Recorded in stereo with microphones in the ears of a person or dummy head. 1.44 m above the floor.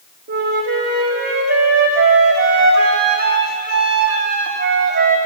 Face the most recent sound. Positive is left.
turn(degrees=-50)  # may be behind; listen again after turning